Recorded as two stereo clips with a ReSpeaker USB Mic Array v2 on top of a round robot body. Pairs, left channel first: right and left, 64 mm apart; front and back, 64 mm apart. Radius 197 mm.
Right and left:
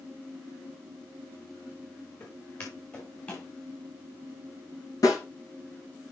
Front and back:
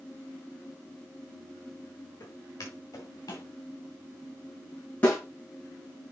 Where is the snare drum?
65° right, 6 m.